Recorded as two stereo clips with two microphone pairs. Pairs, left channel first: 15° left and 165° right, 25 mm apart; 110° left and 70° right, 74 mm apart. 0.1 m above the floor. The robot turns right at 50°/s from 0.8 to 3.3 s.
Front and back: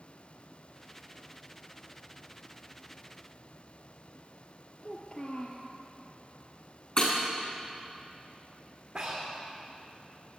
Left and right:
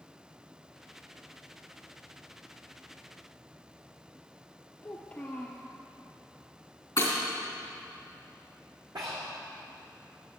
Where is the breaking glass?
65° left, 3.5 m.